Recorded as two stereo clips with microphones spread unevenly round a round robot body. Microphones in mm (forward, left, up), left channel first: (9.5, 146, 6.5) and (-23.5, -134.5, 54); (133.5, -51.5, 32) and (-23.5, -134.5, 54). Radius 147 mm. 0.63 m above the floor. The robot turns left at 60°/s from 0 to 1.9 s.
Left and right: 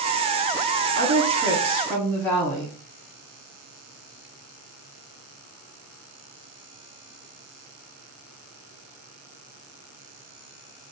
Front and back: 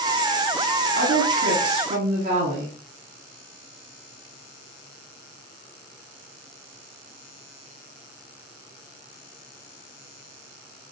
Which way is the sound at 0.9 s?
145° right.